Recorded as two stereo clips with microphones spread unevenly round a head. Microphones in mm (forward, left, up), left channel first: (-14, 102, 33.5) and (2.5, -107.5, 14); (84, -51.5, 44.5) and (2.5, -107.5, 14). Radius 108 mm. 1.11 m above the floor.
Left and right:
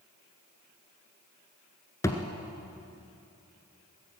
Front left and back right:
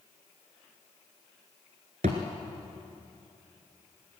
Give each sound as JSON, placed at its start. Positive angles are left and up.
{"t": 2.0, "sound": "a thud", "azimuth_deg": 165, "distance_m": 1.6}